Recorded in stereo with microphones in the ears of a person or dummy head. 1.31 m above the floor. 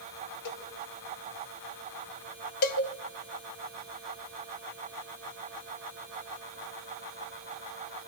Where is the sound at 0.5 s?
60° left (ahead or behind), 2 m.